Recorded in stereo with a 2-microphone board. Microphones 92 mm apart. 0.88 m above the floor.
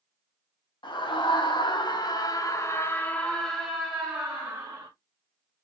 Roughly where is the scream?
Left.